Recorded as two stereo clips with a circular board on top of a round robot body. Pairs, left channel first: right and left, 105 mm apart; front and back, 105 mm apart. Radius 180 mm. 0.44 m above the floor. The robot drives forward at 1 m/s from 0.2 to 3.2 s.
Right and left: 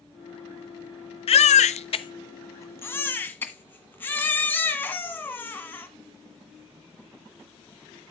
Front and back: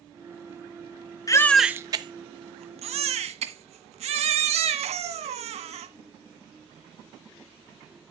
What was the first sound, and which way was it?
A baby crying, 60° right.